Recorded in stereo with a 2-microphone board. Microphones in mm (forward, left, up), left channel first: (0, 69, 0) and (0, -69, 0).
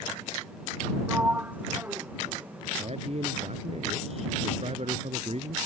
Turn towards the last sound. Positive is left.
turn(degrees=-50)  # may be behind; listen again after turning